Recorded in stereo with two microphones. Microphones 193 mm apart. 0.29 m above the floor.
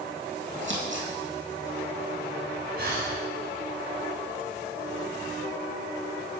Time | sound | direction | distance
0.6 | scissors | 80° right | 1.9 m
2.8 | breathing | 60° right (ahead or behind) | 1.8 m